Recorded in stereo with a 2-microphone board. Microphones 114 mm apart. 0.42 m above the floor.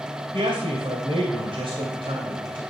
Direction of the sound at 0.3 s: 50° right (ahead or behind).